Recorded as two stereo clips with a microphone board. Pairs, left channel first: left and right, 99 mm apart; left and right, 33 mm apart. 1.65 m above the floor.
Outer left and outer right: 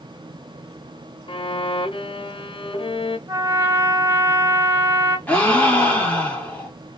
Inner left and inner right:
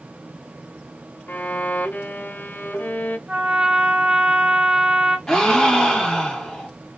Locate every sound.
1.3 s a violin: 65° left (ahead or behind), 0.5 m
3.3 s a trumpet: 40° right (ahead or behind), 1.1 m
5.3 s a gasp: 20° left (ahead or behind), 1.3 m